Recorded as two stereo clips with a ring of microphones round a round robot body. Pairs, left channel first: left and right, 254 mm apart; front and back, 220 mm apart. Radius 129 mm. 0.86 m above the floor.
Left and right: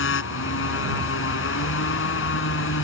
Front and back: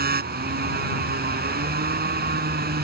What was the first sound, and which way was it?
A motorcycle, 135° left.